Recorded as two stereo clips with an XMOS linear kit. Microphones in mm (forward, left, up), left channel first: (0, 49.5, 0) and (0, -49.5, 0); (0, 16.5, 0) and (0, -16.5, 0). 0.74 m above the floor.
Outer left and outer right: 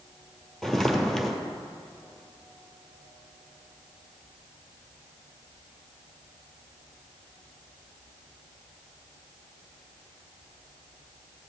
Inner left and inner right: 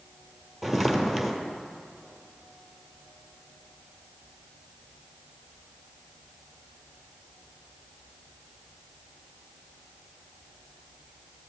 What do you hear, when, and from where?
0.6 s footsteps: 5° left (ahead or behind), 1.3 m